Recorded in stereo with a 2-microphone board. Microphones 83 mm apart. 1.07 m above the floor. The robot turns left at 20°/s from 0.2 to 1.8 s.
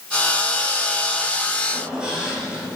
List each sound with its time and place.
1.7 s a squeak: 15° right (ahead or behind), 4 m; by 2.8 s 10° right (ahead or behind), 4 m